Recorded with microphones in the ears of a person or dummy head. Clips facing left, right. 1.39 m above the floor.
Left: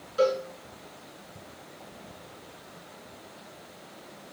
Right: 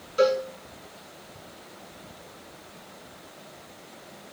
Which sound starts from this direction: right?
A cowbell, at 0.2 s.